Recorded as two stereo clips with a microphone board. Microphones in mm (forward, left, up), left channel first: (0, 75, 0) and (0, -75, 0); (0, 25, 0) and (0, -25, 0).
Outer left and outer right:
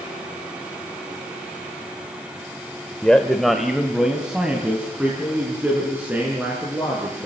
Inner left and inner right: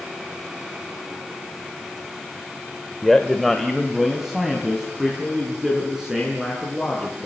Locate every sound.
3.0 s a man speaking: 10° left (ahead or behind), 1.3 m; by 7.3 s 10° right (ahead or behind), 6.5 m